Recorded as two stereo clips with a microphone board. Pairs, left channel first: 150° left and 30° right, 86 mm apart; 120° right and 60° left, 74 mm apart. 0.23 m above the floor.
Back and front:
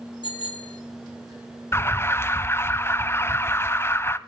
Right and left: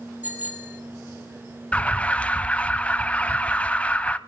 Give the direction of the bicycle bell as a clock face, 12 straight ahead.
8 o'clock.